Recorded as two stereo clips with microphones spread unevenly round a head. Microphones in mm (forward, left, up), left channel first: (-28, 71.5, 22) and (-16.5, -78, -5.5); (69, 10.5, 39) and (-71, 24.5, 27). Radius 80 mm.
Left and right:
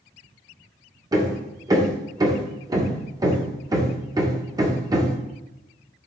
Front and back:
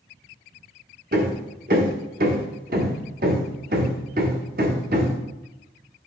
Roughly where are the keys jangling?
I don't hear keys jangling.